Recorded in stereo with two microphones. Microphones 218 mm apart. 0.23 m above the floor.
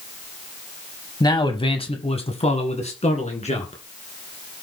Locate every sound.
1.2 s a man speaking: 15° left (ahead or behind), 1.0 m; by 3.8 s 30° left (ahead or behind), 2.5 m